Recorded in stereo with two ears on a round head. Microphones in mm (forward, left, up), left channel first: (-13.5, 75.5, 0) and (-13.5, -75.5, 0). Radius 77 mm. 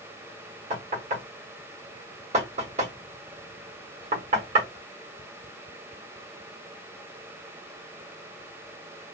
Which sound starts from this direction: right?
Knocking, at 0.7 s.